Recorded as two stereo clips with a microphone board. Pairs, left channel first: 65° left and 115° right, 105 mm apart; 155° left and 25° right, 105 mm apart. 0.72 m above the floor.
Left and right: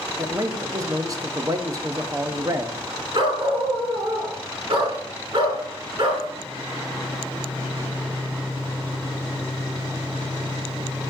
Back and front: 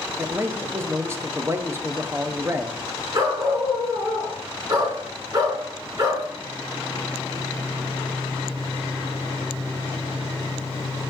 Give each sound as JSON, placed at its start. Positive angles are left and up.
{"t": 0.2, "sound": "a man speaking", "azimuth_deg": -75, "distance_m": 0.7}
{"t": 3.1, "sound": "a dog barking", "azimuth_deg": -75, "distance_m": 3.0}